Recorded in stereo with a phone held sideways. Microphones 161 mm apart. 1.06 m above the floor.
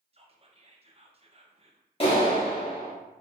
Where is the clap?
35° left (ahead or behind), 1.4 m.